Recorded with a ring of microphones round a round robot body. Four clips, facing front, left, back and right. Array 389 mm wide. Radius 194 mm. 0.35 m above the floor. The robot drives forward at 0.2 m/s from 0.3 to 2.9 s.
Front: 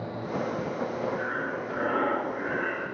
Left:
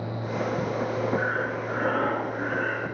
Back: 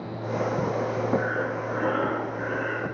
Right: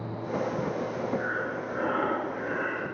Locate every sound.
1.2 s breathing: 160° left, 5 m